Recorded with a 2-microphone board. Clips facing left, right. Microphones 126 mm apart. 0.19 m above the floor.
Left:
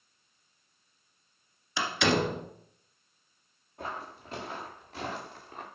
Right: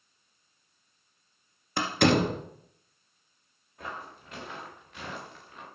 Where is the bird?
No bird in this recording.